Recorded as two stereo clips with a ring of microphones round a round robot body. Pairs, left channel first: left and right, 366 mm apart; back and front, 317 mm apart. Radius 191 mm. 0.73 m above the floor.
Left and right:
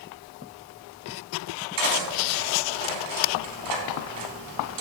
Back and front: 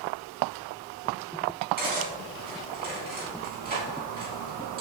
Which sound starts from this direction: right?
Cutlery clinking, at 1.8 s.